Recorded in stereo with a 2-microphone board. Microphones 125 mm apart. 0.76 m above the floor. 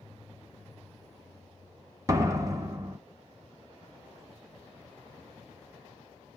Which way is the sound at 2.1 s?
30° right (ahead or behind).